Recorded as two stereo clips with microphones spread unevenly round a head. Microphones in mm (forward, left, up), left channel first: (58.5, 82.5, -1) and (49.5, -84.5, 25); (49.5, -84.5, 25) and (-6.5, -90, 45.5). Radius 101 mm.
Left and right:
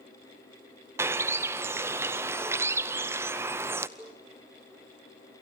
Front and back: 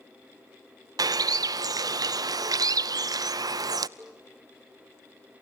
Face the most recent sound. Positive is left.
turn(degrees=-155)